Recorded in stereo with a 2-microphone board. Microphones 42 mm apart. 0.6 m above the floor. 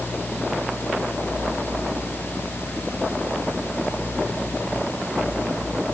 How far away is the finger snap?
No finger snap in this recording.